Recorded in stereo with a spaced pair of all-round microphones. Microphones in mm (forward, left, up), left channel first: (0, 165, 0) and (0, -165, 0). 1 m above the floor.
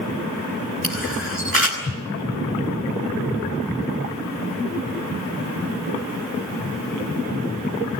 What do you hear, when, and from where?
0.8 s a camera shutter: 40° right (ahead or behind), 6.5 m